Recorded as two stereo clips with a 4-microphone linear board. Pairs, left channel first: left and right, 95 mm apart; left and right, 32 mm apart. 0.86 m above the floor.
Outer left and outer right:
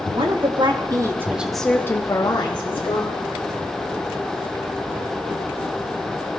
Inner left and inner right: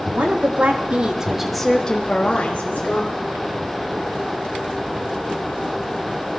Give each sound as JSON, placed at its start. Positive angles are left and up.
{"t": 0.1, "sound": "a woman speaking", "side_deg": -60, "distance_m": 1.4}